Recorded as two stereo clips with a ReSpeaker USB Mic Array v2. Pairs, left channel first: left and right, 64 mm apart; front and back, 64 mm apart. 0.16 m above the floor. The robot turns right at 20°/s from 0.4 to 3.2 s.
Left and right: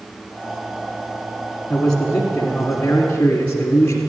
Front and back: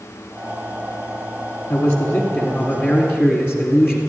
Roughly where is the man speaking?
Ahead.